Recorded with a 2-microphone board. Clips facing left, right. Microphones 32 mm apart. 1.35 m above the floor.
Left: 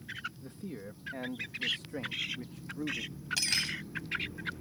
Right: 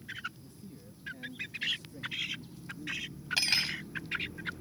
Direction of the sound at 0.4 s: 65° left (ahead or behind).